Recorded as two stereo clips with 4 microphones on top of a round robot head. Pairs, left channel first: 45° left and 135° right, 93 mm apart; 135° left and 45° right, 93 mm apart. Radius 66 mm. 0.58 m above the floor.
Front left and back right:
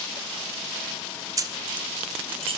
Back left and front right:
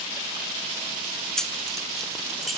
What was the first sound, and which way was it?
Keys jangling, 145° right.